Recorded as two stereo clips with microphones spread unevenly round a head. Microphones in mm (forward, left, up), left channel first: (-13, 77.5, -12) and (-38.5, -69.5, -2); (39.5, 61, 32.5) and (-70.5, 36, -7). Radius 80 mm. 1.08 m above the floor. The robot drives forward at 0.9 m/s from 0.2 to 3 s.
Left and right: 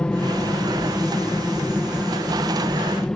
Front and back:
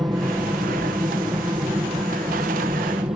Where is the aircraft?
155° left; by 3.1 s 160° left.